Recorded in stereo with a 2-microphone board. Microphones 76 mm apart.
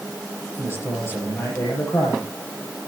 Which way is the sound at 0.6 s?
40° left (ahead or behind).